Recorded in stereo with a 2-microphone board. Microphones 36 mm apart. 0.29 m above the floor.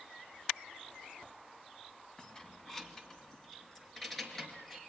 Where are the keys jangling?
25° left (ahead or behind), 1.7 m; by 4.8 s 5° left (ahead or behind), 4.5 m.